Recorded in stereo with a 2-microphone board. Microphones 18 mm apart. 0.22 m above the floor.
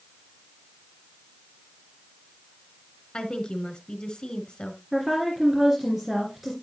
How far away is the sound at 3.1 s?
About 1.6 m.